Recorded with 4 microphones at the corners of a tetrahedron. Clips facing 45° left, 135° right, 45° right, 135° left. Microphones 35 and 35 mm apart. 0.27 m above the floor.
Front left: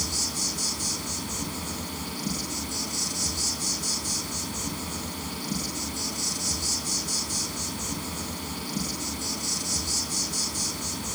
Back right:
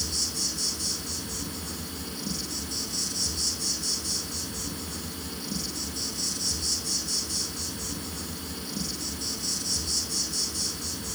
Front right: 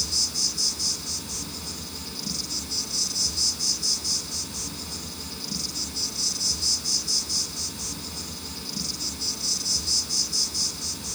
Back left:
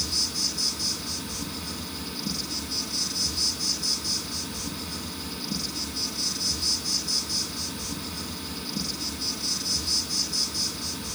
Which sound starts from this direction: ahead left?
An insect, at 0.0 s.